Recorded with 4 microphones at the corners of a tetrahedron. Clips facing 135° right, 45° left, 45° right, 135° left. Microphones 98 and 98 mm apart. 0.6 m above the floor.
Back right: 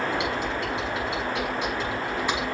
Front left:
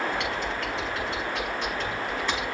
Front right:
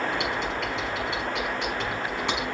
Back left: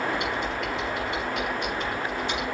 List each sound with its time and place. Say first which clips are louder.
0.1 s typing on a keyboard: back right 2 dB, even; 60° right, 5.5 m